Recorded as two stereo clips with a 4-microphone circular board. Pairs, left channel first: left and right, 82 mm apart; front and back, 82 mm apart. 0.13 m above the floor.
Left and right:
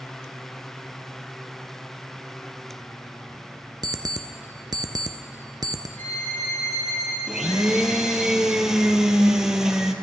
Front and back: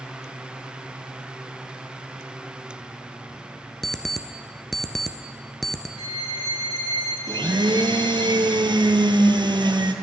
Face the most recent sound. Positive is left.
turn(degrees=-175)